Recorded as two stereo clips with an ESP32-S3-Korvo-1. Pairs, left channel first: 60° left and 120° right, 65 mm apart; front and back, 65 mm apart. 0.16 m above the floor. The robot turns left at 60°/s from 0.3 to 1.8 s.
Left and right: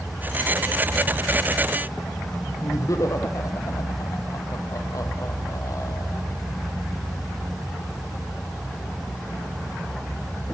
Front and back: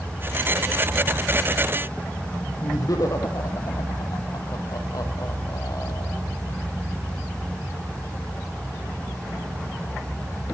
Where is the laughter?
25° left, 5 m.